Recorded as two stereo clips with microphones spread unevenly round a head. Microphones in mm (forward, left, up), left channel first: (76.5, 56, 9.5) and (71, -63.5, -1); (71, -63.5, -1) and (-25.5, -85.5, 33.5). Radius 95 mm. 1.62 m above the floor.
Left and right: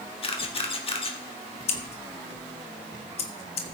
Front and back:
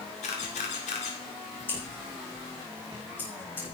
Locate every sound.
0.2 s a camera shutter: 65° left, 1.9 m
1.7 s scissors: 105° left, 1.4 m